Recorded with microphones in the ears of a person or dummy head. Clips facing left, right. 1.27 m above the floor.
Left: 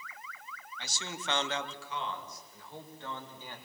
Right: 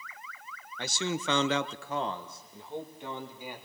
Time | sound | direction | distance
0.8 | a man speaking | 45° right (ahead or behind) | 1.0 m